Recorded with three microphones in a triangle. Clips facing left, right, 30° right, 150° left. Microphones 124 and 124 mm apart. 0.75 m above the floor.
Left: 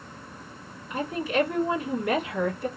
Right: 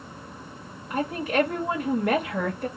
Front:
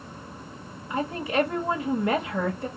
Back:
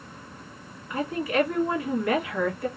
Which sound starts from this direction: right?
A woman speaking, at 0.9 s.